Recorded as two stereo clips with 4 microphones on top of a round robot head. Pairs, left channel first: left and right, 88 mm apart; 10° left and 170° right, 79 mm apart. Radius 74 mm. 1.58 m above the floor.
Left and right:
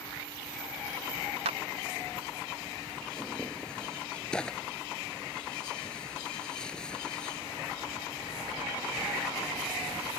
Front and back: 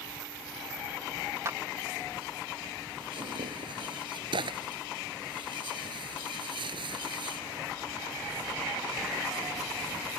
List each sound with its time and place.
1.4 s a clap: 105° right
3.0 s tearing paper: 175° left